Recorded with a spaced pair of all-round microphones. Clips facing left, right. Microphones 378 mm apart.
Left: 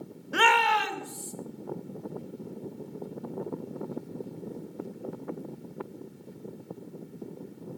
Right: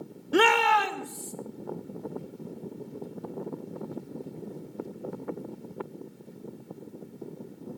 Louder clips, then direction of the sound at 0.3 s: Right 6 dB; 50° right (ahead or behind).